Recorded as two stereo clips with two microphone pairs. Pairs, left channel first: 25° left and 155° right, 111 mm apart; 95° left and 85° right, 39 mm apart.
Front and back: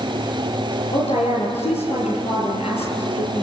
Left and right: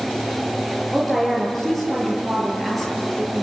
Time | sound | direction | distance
0.9 | a woman speaking | 10° left | 8 m